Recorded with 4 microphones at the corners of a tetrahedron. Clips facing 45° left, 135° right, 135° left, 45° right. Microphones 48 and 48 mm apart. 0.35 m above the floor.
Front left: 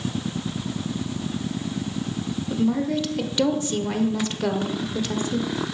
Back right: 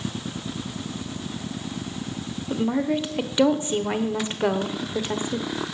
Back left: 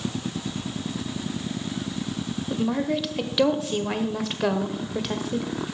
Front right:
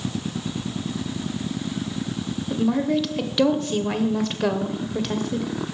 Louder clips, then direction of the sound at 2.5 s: Even, front right 4 dB; 140° right.